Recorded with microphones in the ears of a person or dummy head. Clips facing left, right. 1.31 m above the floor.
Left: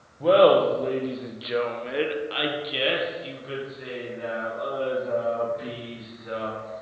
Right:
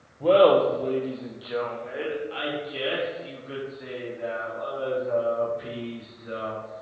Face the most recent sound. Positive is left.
turn(degrees=55)  # may be behind; listen again after turning